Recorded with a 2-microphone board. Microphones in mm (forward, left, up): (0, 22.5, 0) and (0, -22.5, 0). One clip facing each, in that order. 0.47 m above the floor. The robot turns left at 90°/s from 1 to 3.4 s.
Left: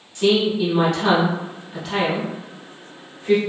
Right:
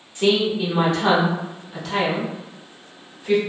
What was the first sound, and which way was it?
A woman speaking, 25° right (ahead or behind).